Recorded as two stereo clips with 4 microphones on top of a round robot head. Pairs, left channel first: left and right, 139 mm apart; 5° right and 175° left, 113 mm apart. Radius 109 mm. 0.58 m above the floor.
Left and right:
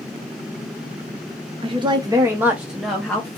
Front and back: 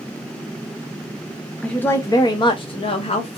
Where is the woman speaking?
80° right, 0.7 m; by 3.4 s 10° left, 1.0 m.